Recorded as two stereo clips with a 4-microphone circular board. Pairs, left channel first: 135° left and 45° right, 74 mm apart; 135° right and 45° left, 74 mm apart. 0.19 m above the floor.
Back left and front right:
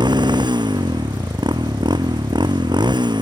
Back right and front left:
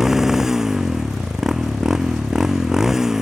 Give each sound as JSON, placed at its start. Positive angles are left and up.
{"t": 0.0, "sound": "a motorcycle", "azimuth_deg": -40}